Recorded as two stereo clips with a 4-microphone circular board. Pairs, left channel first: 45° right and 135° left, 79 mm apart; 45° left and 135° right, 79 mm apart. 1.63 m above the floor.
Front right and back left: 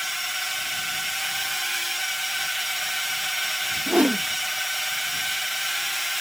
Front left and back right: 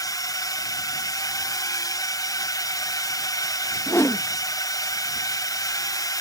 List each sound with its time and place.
0.0 s a drone: 45° left
3.9 s a whoosh: 75° left